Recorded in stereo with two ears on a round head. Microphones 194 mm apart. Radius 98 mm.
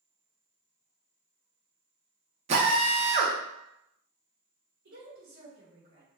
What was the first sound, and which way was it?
A drill, 30° right (ahead or behind).